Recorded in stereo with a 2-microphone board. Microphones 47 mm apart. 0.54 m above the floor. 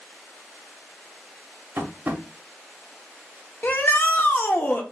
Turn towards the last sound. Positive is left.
turn(degrees=40)  # may be behind; listen again after turning